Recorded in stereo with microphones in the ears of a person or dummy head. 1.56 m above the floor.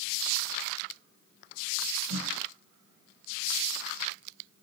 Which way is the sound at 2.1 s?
80° right.